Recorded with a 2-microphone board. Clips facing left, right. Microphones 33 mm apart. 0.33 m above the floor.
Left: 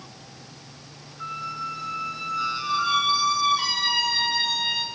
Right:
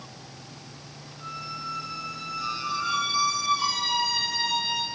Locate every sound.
1.2 s a squeak: 45° left (ahead or behind), 1.9 m